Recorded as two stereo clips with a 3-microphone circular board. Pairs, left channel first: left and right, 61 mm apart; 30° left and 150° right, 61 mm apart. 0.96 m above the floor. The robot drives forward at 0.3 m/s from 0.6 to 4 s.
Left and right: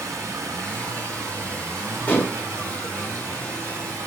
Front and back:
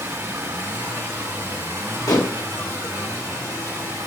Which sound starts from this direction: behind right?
Running water, at 0.0 s.